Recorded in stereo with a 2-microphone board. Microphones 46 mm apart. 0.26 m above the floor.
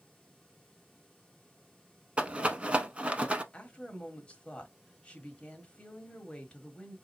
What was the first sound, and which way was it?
A rattle, 25° right (ahead or behind).